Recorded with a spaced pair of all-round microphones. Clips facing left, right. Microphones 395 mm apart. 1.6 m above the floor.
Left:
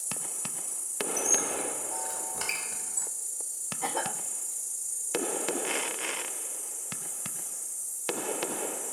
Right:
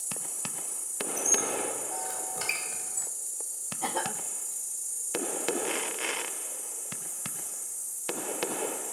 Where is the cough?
50° right (ahead or behind), 2 m.